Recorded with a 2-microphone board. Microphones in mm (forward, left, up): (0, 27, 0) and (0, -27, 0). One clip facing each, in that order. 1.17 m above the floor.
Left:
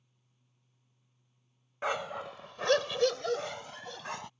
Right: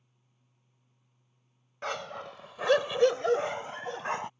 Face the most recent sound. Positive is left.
turn(degrees=-35)  # may be behind; listen again after turning